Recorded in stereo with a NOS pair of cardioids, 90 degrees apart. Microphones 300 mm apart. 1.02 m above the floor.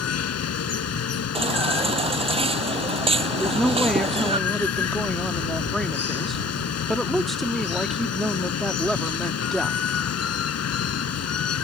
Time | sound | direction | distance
0.0 | running water | 55° left | ?
1.4 | a baby crying | 20° right | ?
3.4 | a woman speaking | straight ahead | ?